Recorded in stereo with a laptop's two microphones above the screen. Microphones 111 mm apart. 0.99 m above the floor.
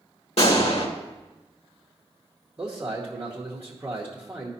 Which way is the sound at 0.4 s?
70° left (ahead or behind).